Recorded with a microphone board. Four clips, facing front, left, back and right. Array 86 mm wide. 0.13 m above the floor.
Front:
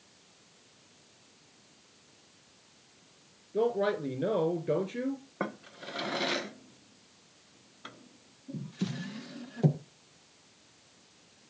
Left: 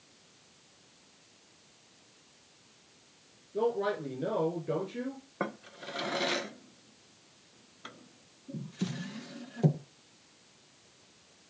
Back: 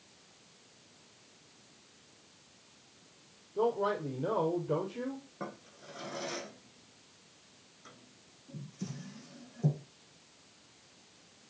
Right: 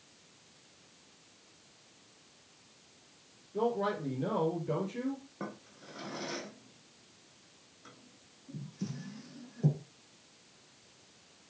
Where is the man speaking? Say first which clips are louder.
Left 2 dB, front 2 dB; 10° left, 3.5 m.